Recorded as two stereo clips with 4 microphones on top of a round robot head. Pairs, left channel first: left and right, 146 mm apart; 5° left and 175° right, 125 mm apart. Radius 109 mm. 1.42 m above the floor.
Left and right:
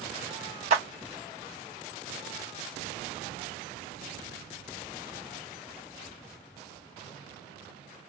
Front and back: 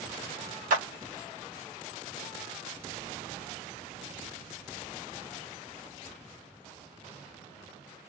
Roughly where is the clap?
Behind right.